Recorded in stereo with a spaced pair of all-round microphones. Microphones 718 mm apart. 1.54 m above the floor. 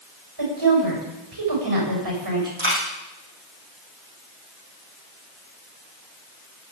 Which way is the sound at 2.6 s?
40° right (ahead or behind).